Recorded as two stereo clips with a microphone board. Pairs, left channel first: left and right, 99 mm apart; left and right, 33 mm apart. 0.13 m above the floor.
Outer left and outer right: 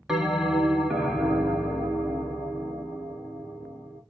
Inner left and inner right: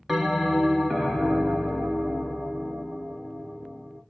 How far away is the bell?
About 0.6 m.